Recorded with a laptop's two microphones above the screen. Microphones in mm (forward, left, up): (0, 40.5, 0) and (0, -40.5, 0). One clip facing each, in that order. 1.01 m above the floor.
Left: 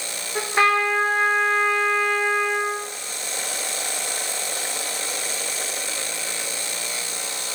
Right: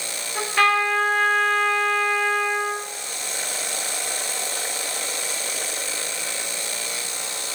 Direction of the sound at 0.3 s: 25° left (ahead or behind).